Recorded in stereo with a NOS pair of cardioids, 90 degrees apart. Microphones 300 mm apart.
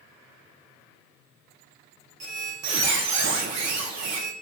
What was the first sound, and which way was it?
A squeak, 65° right.